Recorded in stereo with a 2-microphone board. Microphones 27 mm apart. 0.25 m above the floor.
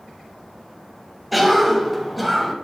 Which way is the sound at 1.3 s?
Centre (ahead or behind).